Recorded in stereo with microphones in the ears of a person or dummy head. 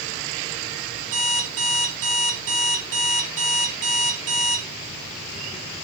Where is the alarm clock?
75° right (ahead or behind), 2 m.